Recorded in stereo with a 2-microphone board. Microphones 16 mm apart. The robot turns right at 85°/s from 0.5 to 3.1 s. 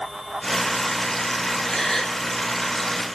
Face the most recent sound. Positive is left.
turn(degrees=-135)